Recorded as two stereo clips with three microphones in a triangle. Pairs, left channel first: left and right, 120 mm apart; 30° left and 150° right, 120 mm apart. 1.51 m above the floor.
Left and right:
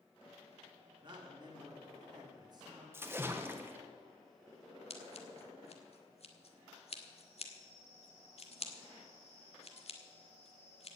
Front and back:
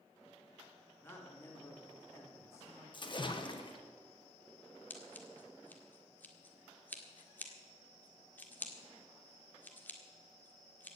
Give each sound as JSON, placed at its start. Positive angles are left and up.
{"t": 1.0, "sound": "a man speaking", "azimuth_deg": -40, "distance_m": 3.0}
{"t": 2.9, "sound": "a splash", "azimuth_deg": -20, "distance_m": 1.4}
{"t": 4.9, "sound": "scissors", "azimuth_deg": 100, "distance_m": 1.7}